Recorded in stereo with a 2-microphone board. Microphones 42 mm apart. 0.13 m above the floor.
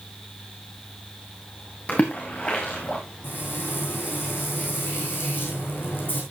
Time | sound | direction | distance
1.9 | a splash | 30° left (ahead or behind) | 3.5 m
3.2 | frying | 55° left (ahead or behind) | 5.5 m